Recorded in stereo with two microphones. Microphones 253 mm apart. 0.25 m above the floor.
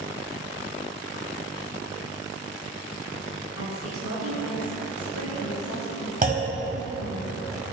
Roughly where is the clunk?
Right.